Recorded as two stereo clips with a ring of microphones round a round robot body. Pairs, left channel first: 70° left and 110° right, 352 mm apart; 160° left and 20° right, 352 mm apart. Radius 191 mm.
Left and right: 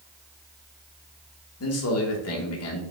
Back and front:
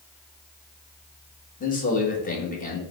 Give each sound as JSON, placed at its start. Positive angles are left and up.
{"t": 1.6, "sound": "a man speaking", "azimuth_deg": 100, "distance_m": 1.2}